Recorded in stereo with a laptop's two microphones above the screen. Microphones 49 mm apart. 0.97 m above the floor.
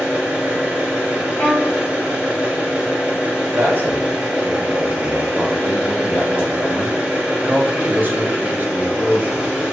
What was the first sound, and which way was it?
An engine running, 20° right (ahead or behind).